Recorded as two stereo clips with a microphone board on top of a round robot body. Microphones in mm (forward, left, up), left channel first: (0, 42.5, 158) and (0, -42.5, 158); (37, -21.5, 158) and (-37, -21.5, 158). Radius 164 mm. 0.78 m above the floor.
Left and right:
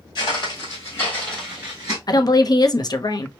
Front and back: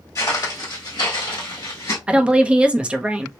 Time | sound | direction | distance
0.1 | footsteps | 55° left | 1.4 m
2.1 | a woman speaking | 110° left | 0.7 m